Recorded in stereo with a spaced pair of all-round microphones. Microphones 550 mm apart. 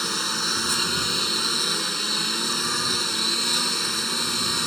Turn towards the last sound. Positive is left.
turn(degrees=0)  # may be behind; listen again after turning